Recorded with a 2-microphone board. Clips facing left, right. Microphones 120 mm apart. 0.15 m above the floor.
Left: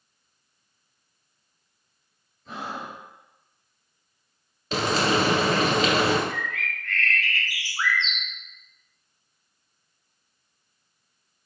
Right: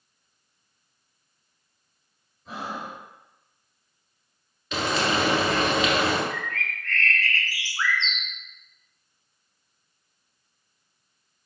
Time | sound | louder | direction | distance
2.5 | breathing | even | 10° right (ahead or behind) | 2 m
4.7 | frying | left 2 dB | 35° left (ahead or behind) | 1.3 m
6.3 | a bird | even | 15° left (ahead or behind) | 0.8 m